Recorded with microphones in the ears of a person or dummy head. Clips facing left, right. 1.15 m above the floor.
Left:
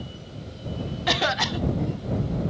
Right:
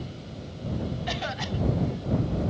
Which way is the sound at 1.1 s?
70° left (ahead or behind).